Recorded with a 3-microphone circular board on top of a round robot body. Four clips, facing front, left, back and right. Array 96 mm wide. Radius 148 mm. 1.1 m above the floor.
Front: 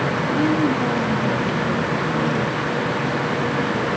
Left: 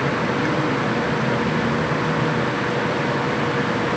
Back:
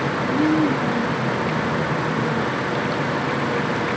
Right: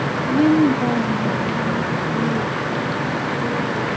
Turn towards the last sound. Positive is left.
turn(degrees=-30)